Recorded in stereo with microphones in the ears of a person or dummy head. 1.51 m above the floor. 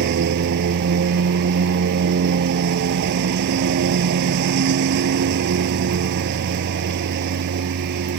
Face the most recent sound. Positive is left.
turn(degrees=-55)  # may be behind; listen again after turning